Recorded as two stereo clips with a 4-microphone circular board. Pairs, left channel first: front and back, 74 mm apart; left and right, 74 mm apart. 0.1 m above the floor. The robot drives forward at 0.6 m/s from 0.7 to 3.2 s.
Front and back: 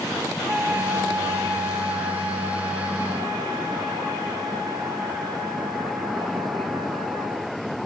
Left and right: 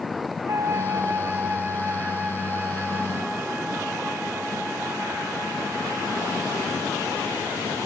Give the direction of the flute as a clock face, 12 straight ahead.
4 o'clock.